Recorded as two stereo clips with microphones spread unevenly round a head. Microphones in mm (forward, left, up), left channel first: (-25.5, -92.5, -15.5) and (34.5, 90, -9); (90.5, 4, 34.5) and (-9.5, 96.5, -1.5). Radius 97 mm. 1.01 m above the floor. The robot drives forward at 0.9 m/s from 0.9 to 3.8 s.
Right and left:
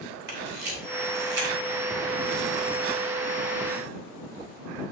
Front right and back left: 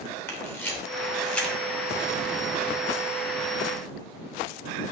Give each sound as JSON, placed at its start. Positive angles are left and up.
{"t": 0.3, "sound": "a camera shutter", "azimuth_deg": 30, "distance_m": 2.5}